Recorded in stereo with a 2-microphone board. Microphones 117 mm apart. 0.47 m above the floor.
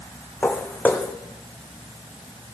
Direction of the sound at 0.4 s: 15° left (ahead or behind).